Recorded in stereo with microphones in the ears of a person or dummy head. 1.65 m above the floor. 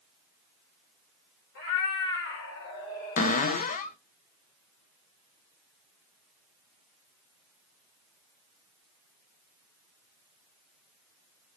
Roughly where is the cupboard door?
Left.